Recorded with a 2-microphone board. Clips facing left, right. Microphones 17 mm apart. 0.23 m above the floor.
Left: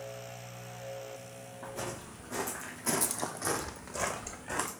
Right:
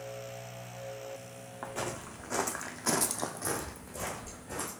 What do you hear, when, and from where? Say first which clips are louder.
1.6 s footsteps: right 3 dB; 65° right (ahead or behind), 1.3 m; by 4.7 s 60° left (ahead or behind), 1.2 m